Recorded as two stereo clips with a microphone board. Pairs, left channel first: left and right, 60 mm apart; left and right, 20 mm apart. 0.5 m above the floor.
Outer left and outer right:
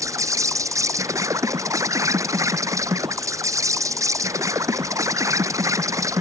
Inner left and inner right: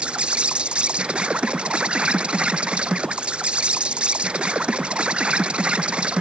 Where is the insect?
65° right (ahead or behind).